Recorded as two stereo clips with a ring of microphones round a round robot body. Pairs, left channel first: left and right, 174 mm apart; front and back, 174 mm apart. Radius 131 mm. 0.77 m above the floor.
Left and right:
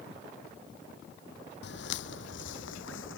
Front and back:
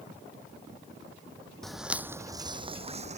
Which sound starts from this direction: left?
Footsteps, at 1.6 s.